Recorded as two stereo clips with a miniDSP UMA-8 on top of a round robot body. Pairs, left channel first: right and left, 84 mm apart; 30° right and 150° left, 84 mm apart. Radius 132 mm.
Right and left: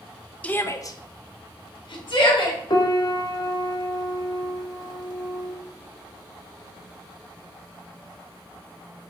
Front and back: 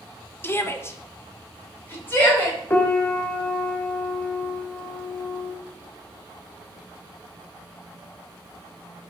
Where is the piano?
90° right, 0.9 m.